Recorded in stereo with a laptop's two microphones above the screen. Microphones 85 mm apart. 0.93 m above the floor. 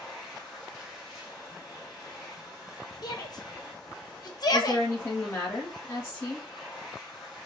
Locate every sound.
0.0 s a machine running: 5° right (ahead or behind), 0.8 m
3.0 s a shout: 50° left (ahead or behind), 0.6 m
4.5 s a woman speaking: 25° left (ahead or behind), 1.3 m